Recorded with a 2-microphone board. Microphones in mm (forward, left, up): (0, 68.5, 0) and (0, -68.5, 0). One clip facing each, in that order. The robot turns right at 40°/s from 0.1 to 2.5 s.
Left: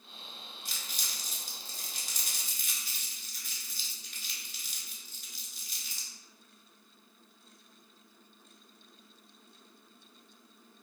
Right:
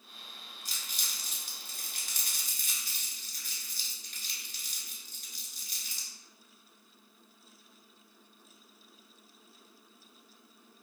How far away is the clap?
I don't hear a clap.